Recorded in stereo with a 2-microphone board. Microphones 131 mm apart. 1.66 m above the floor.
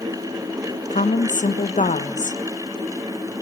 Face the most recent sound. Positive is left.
turn(degrees=70)  # may be behind; listen again after turning